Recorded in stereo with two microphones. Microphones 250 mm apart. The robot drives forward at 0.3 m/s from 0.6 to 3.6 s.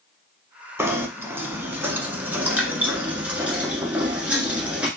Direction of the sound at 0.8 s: 10° right (ahead or behind).